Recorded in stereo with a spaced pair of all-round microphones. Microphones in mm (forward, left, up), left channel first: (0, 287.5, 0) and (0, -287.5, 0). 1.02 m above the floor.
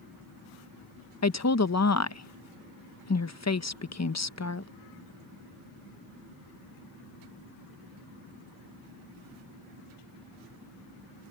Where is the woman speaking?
30° left (ahead or behind).